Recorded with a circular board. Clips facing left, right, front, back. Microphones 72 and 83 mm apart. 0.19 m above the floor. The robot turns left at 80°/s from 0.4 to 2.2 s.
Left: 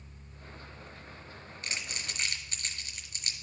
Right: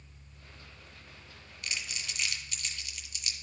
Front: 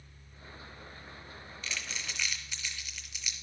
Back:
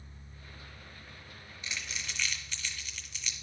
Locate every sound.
1.6 s crumpling: 120° left, 1.1 m; by 3.3 s 75° left, 1.1 m